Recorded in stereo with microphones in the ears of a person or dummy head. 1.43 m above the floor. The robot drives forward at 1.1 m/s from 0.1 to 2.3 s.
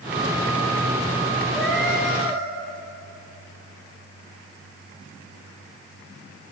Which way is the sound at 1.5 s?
5° right (ahead or behind).